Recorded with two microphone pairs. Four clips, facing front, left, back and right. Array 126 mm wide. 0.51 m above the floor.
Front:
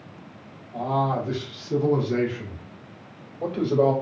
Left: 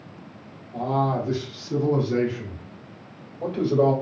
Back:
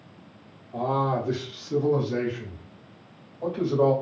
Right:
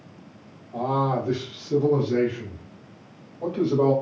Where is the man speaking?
115° right, 0.9 m; by 3.9 s 25° left, 1.5 m.